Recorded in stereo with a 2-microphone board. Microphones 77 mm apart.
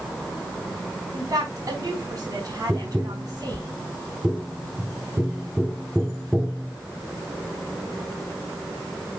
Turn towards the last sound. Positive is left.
turn(degrees=-10)  # may be behind; listen again after turning